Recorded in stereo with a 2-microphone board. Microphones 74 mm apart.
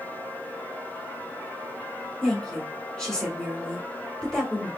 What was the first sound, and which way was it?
A woman speaking, 10° left (ahead or behind).